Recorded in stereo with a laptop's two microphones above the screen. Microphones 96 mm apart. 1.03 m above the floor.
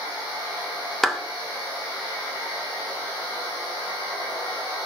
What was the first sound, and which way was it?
A clap, 5° left (ahead or behind).